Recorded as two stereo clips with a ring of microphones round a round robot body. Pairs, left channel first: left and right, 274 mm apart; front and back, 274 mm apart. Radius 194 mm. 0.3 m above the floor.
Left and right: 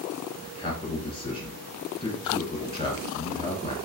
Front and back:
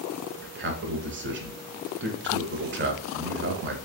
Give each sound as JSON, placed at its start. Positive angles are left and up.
{"t": 0.4, "sound": "a man speaking", "azimuth_deg": 155, "distance_m": 1.1}